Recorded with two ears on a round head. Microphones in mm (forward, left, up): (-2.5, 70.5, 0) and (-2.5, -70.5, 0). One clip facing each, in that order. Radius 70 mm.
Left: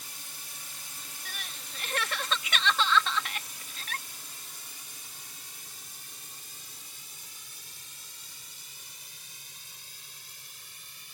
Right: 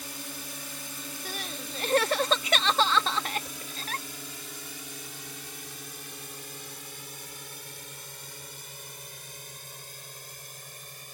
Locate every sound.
0.0 s a drone: 60° right (ahead or behind); by 11.2 s 40° right (ahead or behind)
1.2 s crying: 30° right (ahead or behind)